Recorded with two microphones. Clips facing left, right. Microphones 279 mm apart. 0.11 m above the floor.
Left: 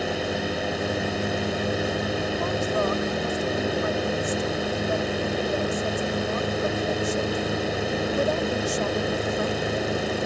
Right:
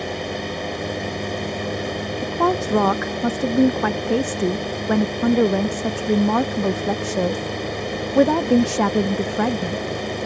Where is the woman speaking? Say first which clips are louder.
Right 5 dB; 75° right (ahead or behind).